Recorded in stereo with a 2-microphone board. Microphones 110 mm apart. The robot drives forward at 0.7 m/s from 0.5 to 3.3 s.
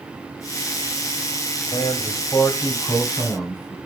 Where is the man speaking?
35° left (ahead or behind), 1.4 m; by 3.8 s 20° left (ahead or behind), 2.5 m.